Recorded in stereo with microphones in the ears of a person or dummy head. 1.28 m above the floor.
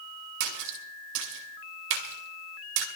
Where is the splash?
70° right (ahead or behind), 2.5 m.